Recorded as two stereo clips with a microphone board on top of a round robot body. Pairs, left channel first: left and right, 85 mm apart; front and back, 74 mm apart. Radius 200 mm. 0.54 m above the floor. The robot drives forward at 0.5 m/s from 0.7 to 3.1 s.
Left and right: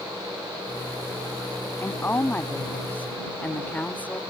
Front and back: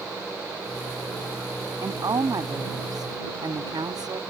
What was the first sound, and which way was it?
A woman speaking, 155° left.